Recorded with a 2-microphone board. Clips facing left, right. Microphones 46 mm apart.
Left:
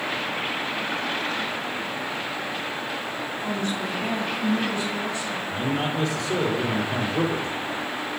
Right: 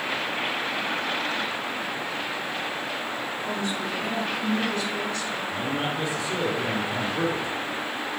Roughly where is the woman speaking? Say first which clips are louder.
Left 2 dB; left.